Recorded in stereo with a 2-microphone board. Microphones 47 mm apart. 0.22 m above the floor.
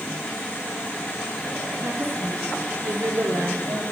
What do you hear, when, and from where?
1.8 s a woman speaking: 75° right (ahead or behind), 4.5 m; by 3.8 s 70° right (ahead or behind), 4 m